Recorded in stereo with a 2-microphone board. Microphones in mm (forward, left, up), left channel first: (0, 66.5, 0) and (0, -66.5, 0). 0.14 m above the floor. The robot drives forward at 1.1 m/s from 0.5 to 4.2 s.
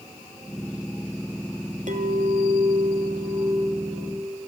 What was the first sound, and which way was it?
A clink, 65° right (ahead or behind).